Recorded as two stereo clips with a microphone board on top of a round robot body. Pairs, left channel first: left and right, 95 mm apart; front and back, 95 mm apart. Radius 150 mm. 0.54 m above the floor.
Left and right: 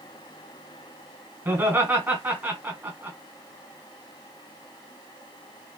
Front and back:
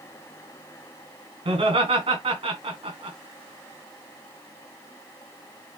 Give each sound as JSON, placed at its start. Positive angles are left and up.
{"t": 1.4, "sound": "laughter", "azimuth_deg": -155, "distance_m": 3.0}